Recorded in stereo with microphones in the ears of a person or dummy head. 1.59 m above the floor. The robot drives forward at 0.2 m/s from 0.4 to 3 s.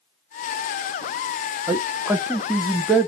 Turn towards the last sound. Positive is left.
turn(degrees=-5)  # may be behind; listen again after turning